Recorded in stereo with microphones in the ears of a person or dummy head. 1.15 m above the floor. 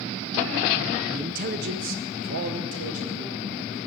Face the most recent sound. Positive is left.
turn(degrees=-70)  # may be behind; listen again after turning